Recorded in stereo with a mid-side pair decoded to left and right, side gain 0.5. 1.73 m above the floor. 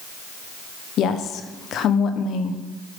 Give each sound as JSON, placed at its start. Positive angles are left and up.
{"t": 1.0, "sound": "a woman speaking", "azimuth_deg": 65, "distance_m": 1.0}